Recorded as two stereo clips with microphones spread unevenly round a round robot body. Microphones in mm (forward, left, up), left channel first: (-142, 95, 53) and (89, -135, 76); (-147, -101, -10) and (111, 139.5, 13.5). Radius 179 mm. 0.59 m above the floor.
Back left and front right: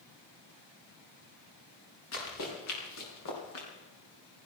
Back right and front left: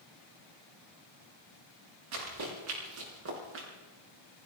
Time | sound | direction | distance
2.1 | running footsteps | 85° left | 8 m